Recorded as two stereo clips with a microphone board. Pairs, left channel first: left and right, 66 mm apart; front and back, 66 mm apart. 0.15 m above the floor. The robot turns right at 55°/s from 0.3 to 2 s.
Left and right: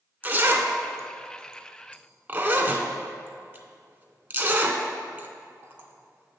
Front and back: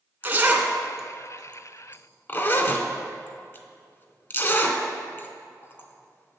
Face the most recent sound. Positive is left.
turn(degrees=-40)